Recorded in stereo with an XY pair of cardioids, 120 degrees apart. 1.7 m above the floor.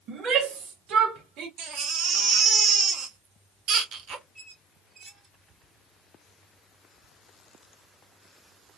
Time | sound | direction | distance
0.1 | a shout | 60° right | 2.5 m
1.6 | a baby crying | 65° right | 1.5 m
4.3 | a squeak | 35° right | 3 m